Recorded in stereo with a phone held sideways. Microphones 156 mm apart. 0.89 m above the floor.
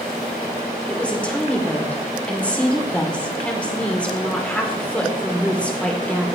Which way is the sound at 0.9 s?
10° left (ahead or behind).